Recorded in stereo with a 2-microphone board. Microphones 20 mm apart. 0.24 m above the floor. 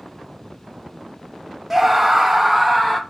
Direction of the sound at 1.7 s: 10° right (ahead or behind).